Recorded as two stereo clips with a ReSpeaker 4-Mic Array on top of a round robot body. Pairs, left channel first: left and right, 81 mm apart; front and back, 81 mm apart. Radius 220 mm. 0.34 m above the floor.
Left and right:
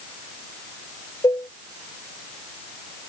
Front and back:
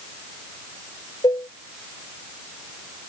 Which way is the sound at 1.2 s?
40° left.